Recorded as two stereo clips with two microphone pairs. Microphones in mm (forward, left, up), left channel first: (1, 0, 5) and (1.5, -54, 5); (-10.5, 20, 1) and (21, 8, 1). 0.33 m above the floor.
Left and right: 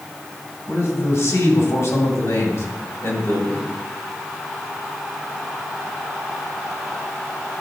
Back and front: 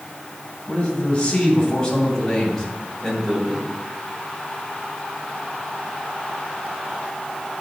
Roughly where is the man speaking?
Left.